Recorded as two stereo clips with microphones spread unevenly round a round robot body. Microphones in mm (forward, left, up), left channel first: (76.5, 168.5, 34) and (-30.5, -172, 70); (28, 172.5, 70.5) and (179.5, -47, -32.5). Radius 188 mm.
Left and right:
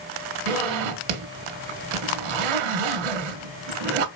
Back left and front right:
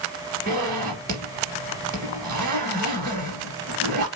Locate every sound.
0.5 s a zipper: 120° right, 1.9 m